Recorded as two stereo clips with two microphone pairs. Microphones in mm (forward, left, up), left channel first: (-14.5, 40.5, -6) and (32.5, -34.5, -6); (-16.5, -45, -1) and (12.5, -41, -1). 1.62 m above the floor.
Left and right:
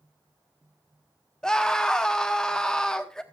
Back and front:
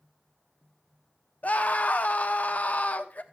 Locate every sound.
1.4 s a scream: 155° right, 0.8 m